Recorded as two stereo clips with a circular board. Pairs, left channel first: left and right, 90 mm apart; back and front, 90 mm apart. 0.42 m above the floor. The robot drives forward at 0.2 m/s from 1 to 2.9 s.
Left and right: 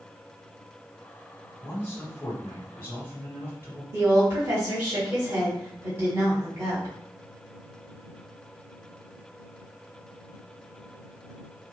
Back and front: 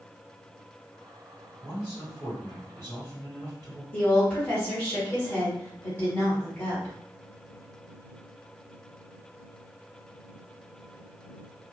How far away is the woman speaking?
About 1.1 m.